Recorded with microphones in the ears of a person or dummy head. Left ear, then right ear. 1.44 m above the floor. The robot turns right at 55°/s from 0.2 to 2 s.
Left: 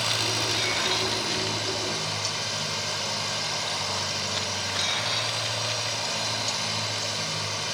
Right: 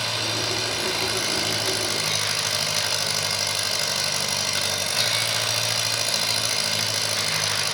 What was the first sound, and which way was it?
An engine running, 165° left.